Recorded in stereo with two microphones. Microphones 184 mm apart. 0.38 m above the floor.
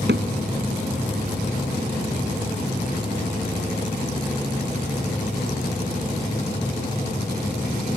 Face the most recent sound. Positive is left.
turn(degrees=-75)  # may be behind; listen again after turning